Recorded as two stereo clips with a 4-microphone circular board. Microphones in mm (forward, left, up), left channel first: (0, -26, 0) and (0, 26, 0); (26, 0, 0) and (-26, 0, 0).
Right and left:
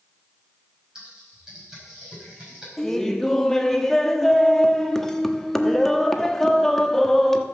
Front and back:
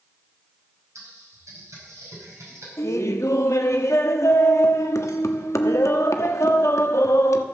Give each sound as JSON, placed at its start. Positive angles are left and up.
{"t": 0.9, "sound": "typing on a keyboard", "azimuth_deg": 170, "distance_m": 4.5}
{"t": 2.8, "sound": "laughter", "azimuth_deg": -5, "distance_m": 1.1}